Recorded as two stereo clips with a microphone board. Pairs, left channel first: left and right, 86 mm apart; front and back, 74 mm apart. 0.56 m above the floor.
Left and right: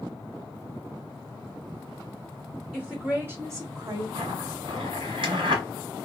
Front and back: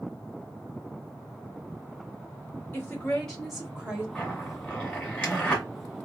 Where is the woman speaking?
15° right, 1.1 m; by 4.0 s 115° right, 1.5 m.